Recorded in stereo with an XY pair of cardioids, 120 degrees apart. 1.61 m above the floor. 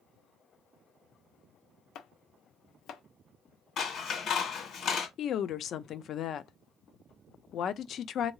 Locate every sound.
1.9 s chopping: 70° left, 0.8 m
3.8 s scissors: 50° left, 1.9 m
5.2 s a woman speaking: 50° left, 0.6 m